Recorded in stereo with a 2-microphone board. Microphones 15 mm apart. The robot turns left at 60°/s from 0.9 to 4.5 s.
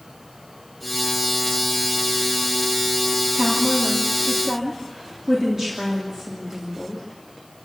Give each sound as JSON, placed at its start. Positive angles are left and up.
{"t": 3.3, "sound": "a woman speaking", "azimuth_deg": -65, "distance_m": 3.0}